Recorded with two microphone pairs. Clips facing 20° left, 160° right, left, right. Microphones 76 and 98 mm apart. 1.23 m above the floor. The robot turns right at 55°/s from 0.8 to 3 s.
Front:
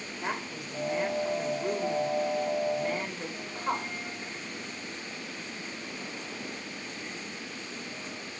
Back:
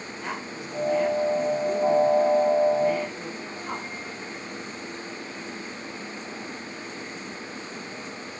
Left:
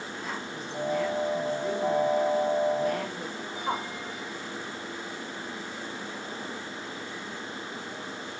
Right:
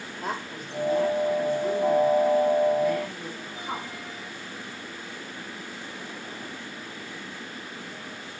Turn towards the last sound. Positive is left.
turn(degrees=65)